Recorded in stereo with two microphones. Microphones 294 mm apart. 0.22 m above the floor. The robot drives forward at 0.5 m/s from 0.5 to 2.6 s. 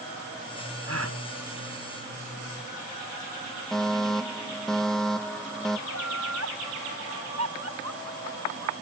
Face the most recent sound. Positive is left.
turn(degrees=-60)  # may be behind; listen again after turning